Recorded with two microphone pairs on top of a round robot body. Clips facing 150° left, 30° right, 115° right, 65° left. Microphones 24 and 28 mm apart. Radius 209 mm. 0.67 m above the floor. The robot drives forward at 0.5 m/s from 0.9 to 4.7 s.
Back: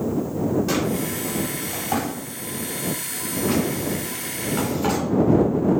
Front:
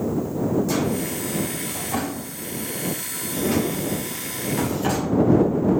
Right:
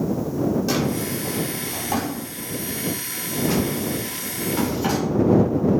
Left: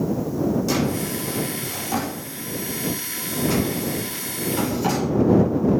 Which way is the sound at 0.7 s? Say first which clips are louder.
Even, even; 170° left.